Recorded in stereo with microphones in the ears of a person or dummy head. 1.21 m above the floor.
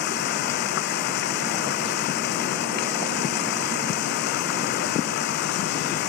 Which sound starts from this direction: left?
Running water, at 0.0 s.